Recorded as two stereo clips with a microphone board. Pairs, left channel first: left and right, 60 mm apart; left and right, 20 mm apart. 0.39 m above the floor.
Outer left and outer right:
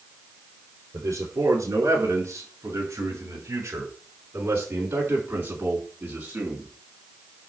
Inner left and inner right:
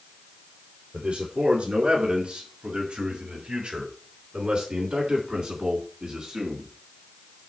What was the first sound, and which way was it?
A man speaking, 60° right (ahead or behind).